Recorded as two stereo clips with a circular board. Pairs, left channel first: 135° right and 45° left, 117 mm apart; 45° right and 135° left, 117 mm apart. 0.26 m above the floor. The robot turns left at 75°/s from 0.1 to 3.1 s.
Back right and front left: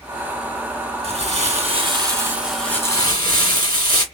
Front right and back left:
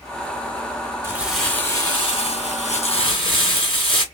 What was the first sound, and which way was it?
Crumpling, 70° left.